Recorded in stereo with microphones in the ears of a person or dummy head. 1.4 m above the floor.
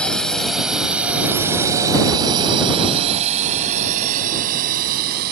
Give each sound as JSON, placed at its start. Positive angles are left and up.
{"t": 0.0, "sound": "a drone", "side_deg": 5}